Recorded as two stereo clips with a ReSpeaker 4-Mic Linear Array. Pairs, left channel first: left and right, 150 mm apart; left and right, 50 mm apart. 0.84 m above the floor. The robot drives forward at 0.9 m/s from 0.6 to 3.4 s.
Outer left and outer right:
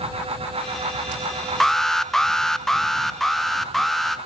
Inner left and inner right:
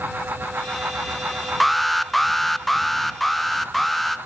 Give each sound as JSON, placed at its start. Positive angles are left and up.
{"t": 1.6, "sound": "an alarm", "side_deg": 5, "distance_m": 0.8}